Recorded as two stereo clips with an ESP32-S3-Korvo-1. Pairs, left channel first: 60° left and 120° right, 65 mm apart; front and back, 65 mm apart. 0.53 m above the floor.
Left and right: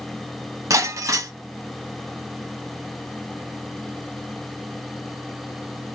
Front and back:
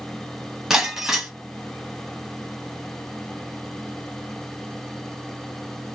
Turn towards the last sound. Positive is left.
turn(degrees=-100)